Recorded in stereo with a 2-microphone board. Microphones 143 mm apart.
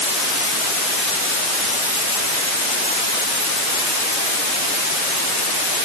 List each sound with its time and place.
Only background noise.